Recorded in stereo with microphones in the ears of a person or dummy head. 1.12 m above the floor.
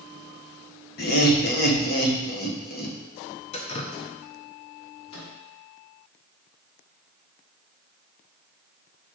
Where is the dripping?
30° left (ahead or behind), 0.7 m.